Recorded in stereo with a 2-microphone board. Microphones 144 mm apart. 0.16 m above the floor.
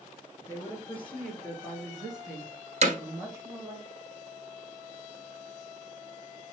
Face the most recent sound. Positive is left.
turn(degrees=-50)  # may be behind; listen again after turning